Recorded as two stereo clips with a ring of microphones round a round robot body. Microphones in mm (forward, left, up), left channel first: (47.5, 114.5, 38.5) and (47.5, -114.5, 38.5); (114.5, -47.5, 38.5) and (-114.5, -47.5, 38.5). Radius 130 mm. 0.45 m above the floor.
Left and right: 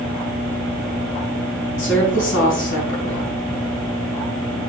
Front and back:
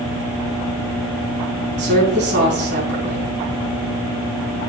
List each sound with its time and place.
1.8 s a woman speaking: 130° left, 4.5 m